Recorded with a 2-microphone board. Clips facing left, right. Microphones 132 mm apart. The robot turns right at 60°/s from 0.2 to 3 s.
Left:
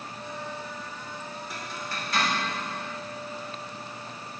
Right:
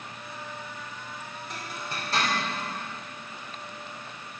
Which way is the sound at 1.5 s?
5° left (ahead or behind).